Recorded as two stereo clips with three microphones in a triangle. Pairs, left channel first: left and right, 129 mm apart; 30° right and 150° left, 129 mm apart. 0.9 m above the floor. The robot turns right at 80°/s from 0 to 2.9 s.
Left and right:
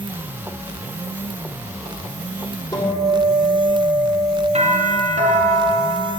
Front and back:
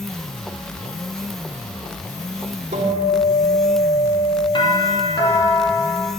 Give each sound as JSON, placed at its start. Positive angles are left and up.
{"t": 2.7, "sound": "a guitar", "azimuth_deg": 150, "distance_m": 2.5}
{"t": 4.5, "sound": "a doorbell", "azimuth_deg": -75, "distance_m": 2.5}